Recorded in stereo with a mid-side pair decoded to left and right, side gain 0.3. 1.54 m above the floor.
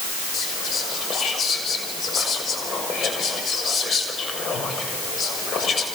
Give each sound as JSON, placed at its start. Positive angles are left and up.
{"t": 0.3, "sound": "whispering", "azimuth_deg": 70, "distance_m": 6.0}